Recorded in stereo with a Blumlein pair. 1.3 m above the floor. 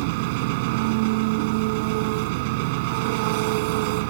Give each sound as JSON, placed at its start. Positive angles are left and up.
{"t": 0.0, "sound": "an engine running", "azimuth_deg": -45}